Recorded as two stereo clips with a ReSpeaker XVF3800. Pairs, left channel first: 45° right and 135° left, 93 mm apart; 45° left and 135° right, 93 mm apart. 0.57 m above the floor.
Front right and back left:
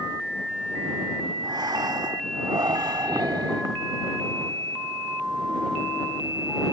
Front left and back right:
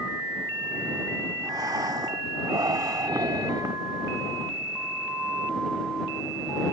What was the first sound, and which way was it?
Breathing, 175° left.